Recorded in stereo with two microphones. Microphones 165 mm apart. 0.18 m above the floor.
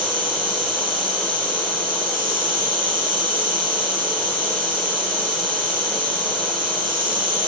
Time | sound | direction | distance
0.0 | an insect | 50° right (ahead or behind) | 4 m